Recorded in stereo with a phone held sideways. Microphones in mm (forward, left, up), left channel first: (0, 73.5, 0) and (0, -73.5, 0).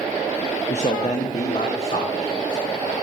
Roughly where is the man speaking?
Left.